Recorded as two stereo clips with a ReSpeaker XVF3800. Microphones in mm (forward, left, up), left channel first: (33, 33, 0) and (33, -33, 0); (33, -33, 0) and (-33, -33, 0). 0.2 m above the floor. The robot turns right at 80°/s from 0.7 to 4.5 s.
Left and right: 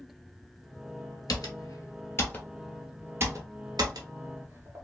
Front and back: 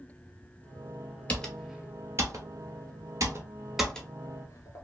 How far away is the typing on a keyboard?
About 0.9 m.